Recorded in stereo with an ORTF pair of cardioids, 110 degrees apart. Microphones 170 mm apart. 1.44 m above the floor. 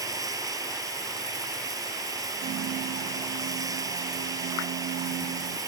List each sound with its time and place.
0.0 s running water: 20° right
2.4 s a piano: 70° right